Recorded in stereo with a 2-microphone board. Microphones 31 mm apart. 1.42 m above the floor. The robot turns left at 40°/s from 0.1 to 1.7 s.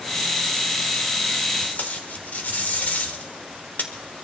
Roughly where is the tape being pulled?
Left.